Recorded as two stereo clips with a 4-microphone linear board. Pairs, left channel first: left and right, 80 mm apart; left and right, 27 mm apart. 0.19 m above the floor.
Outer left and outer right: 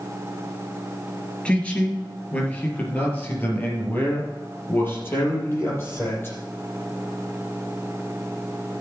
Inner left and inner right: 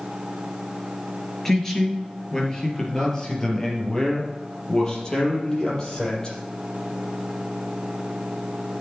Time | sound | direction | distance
1.4 | a man speaking | 15° left (ahead or behind) | 3 m